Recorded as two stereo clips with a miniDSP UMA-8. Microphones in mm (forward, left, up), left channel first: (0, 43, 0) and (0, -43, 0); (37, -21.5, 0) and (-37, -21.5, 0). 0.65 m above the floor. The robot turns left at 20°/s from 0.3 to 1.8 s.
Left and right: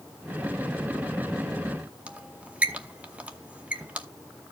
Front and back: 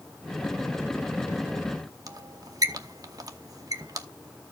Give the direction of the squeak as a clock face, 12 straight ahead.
5 o'clock.